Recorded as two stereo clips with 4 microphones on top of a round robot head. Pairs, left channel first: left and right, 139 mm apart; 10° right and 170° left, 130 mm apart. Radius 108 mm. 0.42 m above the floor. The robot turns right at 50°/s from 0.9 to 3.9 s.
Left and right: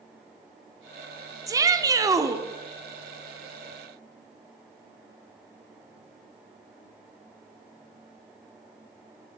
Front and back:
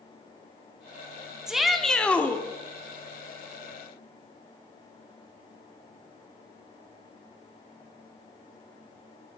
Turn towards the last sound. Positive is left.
turn(degrees=10)